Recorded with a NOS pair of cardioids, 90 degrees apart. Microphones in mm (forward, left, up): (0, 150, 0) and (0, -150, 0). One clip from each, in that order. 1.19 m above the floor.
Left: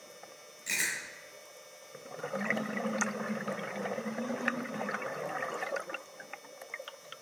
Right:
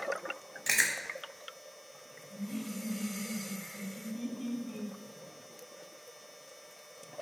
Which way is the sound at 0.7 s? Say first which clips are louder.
Right 4 dB; 65° right.